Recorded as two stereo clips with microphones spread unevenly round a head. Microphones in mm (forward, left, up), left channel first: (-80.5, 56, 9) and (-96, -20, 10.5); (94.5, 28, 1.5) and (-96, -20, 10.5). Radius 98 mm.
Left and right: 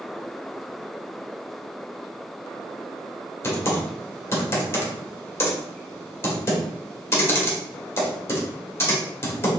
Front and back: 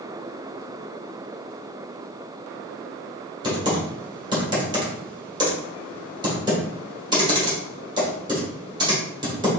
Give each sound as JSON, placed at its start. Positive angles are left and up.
{"t": 3.4, "sound": "typing on a keyboard", "azimuth_deg": 130, "distance_m": 1.6}